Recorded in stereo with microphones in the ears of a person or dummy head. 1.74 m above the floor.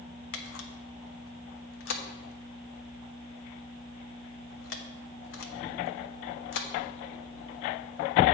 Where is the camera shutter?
65° left (ahead or behind), 0.7 m.